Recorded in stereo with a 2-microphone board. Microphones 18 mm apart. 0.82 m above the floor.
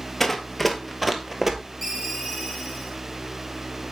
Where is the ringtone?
5° right (ahead or behind), 2.5 m.